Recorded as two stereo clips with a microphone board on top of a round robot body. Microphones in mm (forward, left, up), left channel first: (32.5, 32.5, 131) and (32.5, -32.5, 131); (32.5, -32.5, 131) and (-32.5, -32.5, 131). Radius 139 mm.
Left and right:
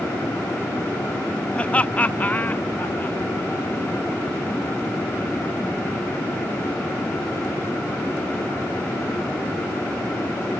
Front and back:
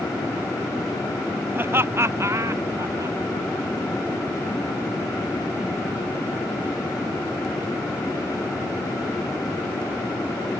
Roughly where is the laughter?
Behind left.